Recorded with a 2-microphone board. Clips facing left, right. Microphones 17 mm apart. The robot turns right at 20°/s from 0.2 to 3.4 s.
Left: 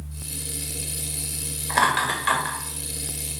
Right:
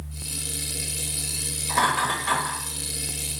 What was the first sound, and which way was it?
Laughter, 55° left (ahead or behind).